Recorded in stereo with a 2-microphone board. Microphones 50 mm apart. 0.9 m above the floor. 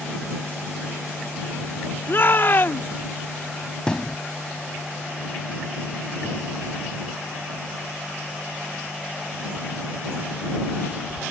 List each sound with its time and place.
2.1 s a shout: 45° left (ahead or behind)
3.9 s a thud: 15° left (ahead or behind)